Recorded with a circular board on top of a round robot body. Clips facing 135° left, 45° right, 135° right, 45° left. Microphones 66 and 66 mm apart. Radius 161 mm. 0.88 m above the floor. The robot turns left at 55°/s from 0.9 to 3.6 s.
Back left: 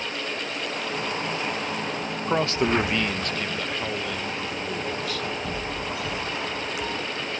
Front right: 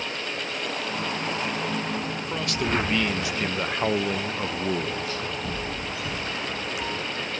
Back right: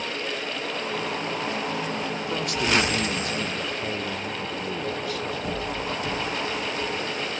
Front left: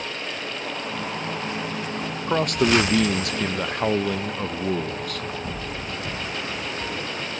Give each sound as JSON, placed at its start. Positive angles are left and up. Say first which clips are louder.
{"t": 2.3, "sound": "a man speaking", "louder": "back left 6 dB, front left 6 dB", "azimuth_deg": 90}